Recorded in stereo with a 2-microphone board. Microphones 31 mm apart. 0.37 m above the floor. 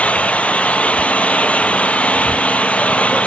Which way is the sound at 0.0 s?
50° left (ahead or behind).